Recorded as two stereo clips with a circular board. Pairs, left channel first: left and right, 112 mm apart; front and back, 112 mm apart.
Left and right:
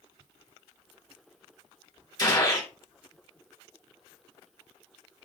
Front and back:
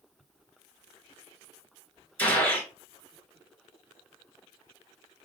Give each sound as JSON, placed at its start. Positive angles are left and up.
{"t": 2.2, "sound": "a gunshot", "azimuth_deg": 65, "distance_m": 1.4}